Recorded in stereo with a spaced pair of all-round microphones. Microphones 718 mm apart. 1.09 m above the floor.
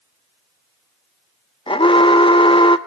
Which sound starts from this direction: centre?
An alarm, at 1.7 s.